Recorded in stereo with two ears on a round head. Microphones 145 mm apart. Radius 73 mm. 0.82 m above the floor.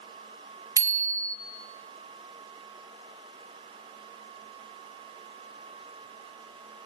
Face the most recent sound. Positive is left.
turn(degrees=-20)  # may be behind; listen again after turning